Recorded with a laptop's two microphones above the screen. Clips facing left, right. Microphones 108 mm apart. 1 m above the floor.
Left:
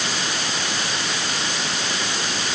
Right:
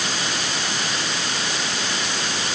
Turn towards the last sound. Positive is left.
No sound to turn to.